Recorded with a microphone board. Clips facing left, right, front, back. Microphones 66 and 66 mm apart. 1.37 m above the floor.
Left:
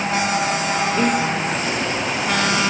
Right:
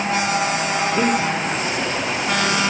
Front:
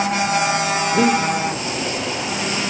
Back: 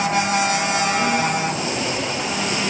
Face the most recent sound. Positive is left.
turn(degrees=-15)